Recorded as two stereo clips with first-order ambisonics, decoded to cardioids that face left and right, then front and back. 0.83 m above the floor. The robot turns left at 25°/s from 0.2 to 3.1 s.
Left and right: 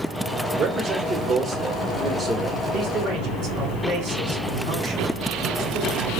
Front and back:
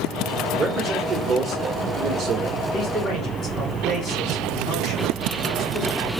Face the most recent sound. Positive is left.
turn(degrees=-50)